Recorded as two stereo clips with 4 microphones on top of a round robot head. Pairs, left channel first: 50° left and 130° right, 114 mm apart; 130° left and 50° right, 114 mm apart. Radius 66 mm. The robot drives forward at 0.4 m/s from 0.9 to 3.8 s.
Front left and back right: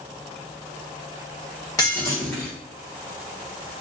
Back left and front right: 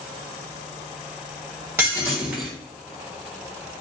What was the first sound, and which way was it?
Breaking glass, 10° left.